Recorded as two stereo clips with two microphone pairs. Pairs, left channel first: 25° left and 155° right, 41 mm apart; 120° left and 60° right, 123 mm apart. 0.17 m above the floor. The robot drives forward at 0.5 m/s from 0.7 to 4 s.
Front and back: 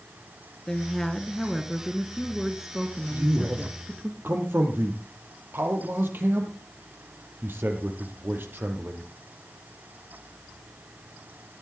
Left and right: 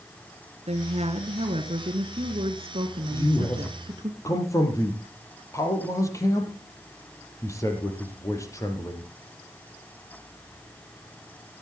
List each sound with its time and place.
0.7 s a woman speaking: 50° right, 2.5 m; by 4.1 s 100° right, 2 m
3.1 s a man speaking: 175° right, 4.5 m